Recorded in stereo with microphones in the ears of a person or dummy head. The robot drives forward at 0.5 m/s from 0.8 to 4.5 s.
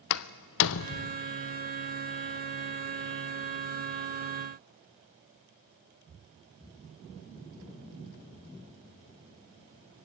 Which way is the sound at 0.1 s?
70° left (ahead or behind).